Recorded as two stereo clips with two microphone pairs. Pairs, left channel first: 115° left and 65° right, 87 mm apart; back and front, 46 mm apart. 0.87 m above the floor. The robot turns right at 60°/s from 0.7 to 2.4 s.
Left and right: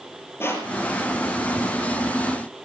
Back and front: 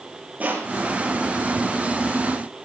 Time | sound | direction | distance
0.4 | crushing | 55° left | 6 m